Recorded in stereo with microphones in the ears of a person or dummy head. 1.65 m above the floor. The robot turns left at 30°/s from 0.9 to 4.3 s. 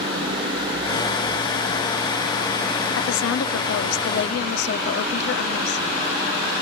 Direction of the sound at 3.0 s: 100° left.